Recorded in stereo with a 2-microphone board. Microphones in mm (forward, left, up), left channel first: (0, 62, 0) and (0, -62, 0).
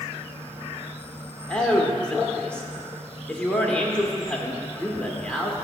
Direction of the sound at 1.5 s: 10° left (ahead or behind).